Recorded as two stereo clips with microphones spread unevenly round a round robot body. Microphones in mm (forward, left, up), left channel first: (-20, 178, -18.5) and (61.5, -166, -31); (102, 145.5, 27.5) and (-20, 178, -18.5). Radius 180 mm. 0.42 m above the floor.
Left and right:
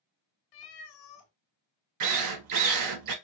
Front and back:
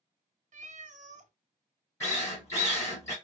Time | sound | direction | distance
0.5 | a cat meowing | 130° left | 0.7 m
2.0 | a drill | 105° right | 0.6 m